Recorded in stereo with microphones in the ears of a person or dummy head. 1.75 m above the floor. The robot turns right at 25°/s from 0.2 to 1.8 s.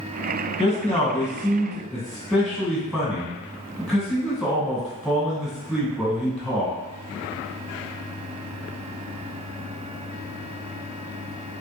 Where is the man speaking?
150° left, 1.2 m; by 6.7 s straight behind, 1.2 m.